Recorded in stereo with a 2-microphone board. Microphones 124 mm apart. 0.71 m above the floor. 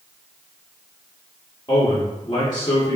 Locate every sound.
1.7 s a man speaking: 35° left (ahead or behind), 1.4 m